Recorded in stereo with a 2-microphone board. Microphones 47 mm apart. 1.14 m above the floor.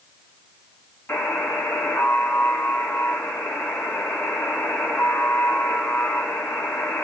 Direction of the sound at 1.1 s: 50° left (ahead or behind).